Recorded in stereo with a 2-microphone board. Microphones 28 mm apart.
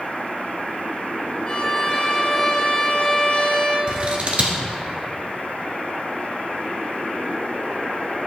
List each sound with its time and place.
1.5 s a violin: 25° left (ahead or behind), 3 m
3.9 s scissors: 45° right (ahead or behind), 1.3 m